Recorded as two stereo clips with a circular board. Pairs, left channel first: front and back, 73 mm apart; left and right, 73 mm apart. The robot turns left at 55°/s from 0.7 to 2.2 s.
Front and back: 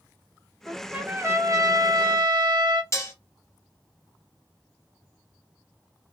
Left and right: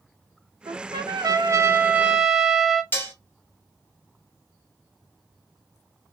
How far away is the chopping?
No chopping in this recording.